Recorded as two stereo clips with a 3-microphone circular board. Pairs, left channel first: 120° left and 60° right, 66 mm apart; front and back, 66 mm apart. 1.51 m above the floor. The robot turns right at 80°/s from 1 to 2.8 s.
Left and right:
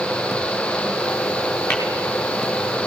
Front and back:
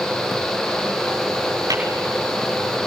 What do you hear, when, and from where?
1.7 s tapping: 175° left, 7 m; by 1.8 s 175° right, 7 m